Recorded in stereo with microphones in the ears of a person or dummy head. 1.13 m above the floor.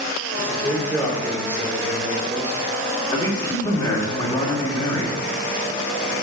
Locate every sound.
0.4 s a man speaking: 15° left (ahead or behind), 3 m
3.1 s a man speaking: 20° left (ahead or behind), 2 m